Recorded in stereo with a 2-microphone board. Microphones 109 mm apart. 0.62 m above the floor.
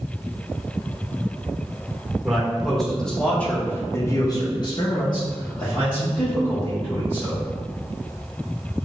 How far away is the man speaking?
About 1.3 m.